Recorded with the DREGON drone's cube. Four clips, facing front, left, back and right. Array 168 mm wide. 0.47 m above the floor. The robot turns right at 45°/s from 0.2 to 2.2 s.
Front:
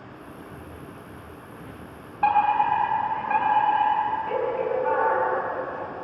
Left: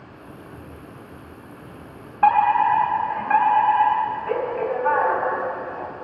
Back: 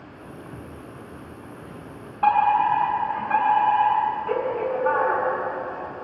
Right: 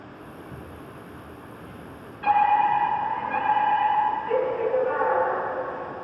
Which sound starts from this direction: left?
A fire alarm, at 2.2 s.